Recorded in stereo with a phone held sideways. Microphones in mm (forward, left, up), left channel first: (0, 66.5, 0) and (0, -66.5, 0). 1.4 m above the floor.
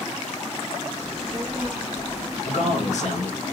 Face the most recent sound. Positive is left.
turn(degrees=65)  # may be behind; listen again after turning